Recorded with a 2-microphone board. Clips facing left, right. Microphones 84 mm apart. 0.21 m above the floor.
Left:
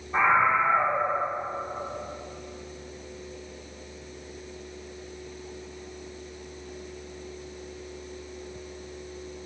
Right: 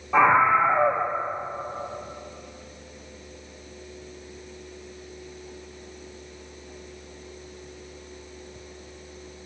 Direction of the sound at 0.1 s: 70° right (ahead or behind).